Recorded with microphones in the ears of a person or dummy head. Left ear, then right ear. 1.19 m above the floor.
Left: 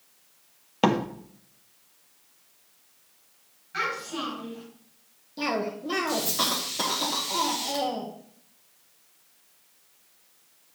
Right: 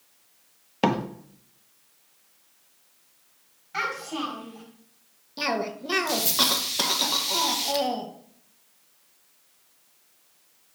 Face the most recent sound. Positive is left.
turn(degrees=-20)  # may be behind; listen again after turning